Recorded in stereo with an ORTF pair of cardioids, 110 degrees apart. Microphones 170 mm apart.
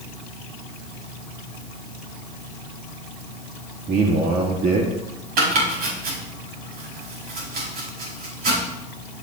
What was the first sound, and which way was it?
A man speaking, 60° right.